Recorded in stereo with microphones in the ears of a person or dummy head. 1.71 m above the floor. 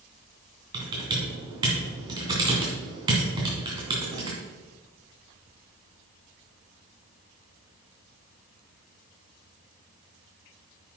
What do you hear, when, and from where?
0.7 s typing on a keyboard: 30° right (ahead or behind), 2.5 m